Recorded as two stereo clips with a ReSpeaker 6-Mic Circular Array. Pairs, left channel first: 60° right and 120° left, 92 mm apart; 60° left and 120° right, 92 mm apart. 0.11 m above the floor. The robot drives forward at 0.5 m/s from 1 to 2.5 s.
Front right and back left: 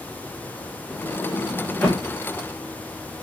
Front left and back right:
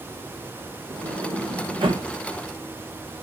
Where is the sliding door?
130° right, 2.5 m; by 2.1 s 140° right, 3 m.